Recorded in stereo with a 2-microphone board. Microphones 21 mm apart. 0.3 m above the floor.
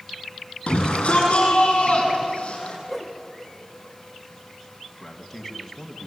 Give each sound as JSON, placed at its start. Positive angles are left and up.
{"t": 0.7, "sound": "a shout", "side_deg": 60, "distance_m": 9.5}
{"t": 2.9, "sound": "a whoosh", "side_deg": -5, "distance_m": 4.0}
{"t": 5.0, "sound": "a man speaking", "side_deg": 10, "distance_m": 3.0}